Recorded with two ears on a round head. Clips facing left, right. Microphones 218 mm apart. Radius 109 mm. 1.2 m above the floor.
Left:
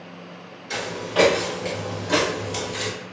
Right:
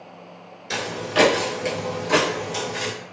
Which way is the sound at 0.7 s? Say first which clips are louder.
Right 1 dB; 35° right (ahead or behind).